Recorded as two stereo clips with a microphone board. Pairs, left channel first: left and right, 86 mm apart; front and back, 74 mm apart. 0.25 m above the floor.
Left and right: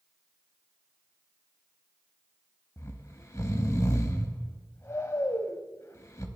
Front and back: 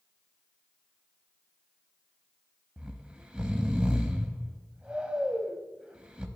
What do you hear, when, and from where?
2.8 s snoring: 110° left, 0.5 m